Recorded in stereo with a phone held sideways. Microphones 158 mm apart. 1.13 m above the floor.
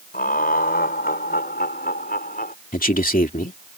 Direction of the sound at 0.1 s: 70° left (ahead or behind).